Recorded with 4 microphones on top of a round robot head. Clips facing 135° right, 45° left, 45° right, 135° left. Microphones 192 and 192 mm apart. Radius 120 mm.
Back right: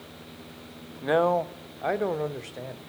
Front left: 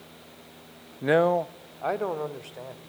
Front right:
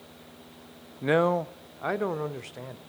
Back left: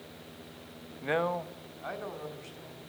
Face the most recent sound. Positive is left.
turn(degrees=-65)